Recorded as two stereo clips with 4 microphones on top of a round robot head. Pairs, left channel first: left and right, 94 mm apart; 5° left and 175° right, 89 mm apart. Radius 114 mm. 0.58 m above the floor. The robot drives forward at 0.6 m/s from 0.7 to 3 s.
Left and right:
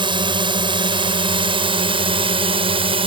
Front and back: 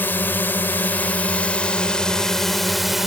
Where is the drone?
65° right; by 3.1 s 85° right.